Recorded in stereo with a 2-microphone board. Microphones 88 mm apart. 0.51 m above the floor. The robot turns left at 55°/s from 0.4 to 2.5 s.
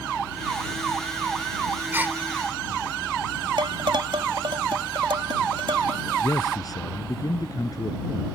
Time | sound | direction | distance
1.9 | a gasp | 25° right (ahead or behind) | ?
3.6 | dishes clattering | 70° right (ahead or behind) | ?
6.2 | a man speaking | 45° left (ahead or behind) | ?